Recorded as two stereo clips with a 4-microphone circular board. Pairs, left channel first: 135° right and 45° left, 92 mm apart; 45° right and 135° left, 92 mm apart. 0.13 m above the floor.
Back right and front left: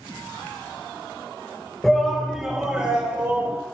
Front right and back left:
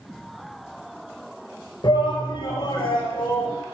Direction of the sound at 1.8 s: 50° right.